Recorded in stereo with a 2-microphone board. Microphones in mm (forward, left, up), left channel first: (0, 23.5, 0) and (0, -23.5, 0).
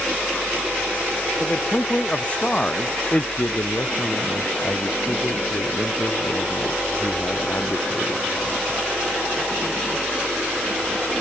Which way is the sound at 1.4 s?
30° left (ahead or behind).